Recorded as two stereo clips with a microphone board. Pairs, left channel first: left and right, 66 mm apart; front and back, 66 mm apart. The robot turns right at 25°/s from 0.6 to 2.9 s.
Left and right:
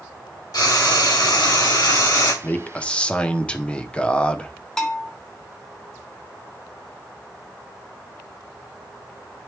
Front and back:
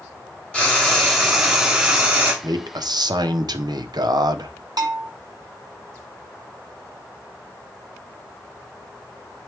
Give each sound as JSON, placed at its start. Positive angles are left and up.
{"t": 0.5, "sound": "frying", "azimuth_deg": 75, "distance_m": 2.5}
{"t": 2.4, "sound": "a man speaking", "azimuth_deg": 155, "distance_m": 0.8}
{"t": 4.8, "sound": "a bell", "azimuth_deg": 170, "distance_m": 1.2}